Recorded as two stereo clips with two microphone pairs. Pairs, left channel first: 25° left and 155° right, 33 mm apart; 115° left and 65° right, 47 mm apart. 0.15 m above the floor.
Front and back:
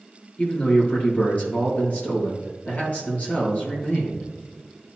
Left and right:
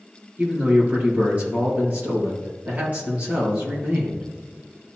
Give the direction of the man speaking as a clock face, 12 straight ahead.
12 o'clock.